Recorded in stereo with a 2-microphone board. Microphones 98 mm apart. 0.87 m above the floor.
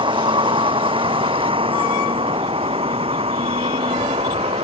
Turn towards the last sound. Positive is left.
turn(degrees=-75)  # may be behind; listen again after turning